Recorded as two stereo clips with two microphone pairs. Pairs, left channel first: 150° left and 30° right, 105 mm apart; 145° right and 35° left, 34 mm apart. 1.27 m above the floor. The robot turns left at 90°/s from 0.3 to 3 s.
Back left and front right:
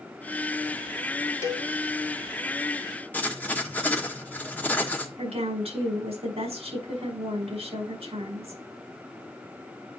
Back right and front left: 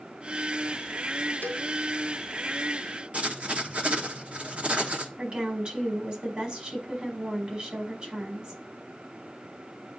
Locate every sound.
1.4 s a cowbell: 155° right, 1.9 m; by 1.7 s 175° right, 1.9 m
3.1 s writing: 80° left, 1.3 m
5.2 s a woman speaking: 20° right, 5 m